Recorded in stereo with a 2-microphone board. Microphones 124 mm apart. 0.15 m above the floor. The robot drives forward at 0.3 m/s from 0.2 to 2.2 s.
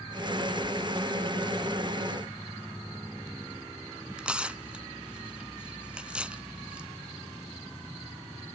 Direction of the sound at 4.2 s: 10° right (ahead or behind).